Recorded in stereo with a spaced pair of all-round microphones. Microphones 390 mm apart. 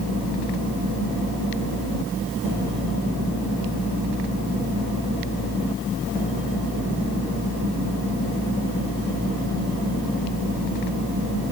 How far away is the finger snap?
I don't hear a finger snap.